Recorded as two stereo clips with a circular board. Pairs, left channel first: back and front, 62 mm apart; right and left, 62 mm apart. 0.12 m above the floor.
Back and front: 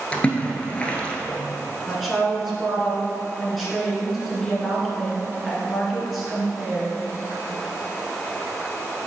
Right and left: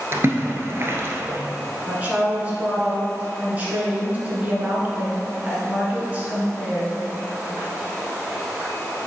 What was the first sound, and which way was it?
A splash, 115° left.